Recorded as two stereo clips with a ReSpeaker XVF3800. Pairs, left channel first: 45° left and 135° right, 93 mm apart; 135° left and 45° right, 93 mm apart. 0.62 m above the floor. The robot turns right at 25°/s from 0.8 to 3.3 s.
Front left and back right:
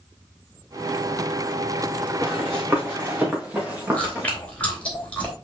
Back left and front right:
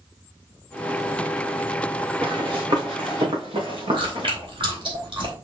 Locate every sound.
2.2 s running footsteps: 75° right, 3.5 m; by 4.3 s 70° right, 4 m
3.9 s chewing: 30° right, 3 m